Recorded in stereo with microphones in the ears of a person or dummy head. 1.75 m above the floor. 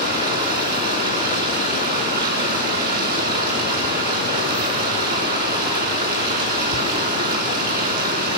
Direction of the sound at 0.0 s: 50° right (ahead or behind).